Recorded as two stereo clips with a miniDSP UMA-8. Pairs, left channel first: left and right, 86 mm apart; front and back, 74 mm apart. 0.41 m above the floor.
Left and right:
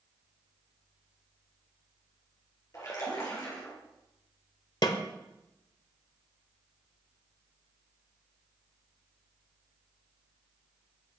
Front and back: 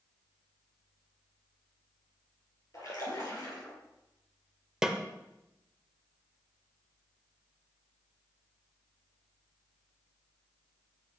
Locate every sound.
2.7 s a splash: 40° left, 2.5 m
4.8 s a snare drum: 100° left, 0.6 m